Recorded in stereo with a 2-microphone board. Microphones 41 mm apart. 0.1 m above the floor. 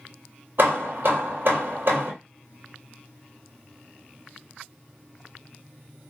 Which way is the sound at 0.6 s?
60° right (ahead or behind).